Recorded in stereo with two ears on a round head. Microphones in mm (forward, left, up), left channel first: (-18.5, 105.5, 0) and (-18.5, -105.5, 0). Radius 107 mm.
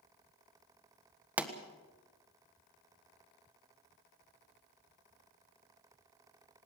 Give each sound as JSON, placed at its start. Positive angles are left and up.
{"t": 1.4, "sound": "a pop", "side_deg": -5, "distance_m": 1.5}